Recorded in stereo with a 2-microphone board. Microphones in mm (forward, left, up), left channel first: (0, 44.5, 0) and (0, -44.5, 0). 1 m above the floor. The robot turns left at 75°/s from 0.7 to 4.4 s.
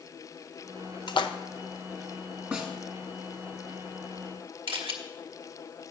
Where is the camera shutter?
75° right (ahead or behind), 1.1 m.